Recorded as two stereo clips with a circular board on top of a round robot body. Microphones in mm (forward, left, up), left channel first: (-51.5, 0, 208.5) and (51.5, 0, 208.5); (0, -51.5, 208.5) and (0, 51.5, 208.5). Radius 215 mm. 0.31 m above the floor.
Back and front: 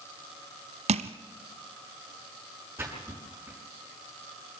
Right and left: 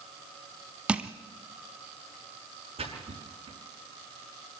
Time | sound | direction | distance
0.9 | crushing | 10° left | 0.7 m
2.8 | a splash | 70° left | 6.5 m